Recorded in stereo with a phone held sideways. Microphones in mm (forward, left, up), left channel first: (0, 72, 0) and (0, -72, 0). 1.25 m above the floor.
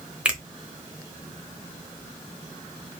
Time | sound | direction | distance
0.2 | a finger snap | 10° right (ahead or behind) | 0.6 m